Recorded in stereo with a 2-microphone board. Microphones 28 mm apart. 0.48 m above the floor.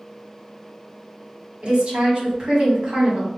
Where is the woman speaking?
45° right (ahead or behind), 1.6 m.